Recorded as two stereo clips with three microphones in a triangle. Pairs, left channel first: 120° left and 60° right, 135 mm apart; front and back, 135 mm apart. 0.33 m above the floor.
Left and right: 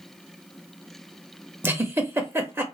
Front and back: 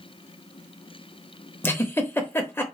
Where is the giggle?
30° right, 0.7 m.